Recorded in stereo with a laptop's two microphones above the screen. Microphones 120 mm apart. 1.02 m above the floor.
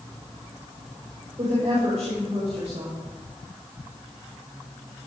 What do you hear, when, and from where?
1.4 s a woman speaking: 70° right (ahead or behind), 4 m